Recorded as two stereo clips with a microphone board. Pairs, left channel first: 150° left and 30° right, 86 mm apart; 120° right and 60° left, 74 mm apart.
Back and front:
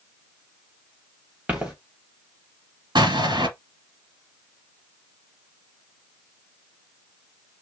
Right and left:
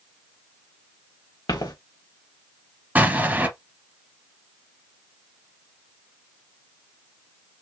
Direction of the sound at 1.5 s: 110° right.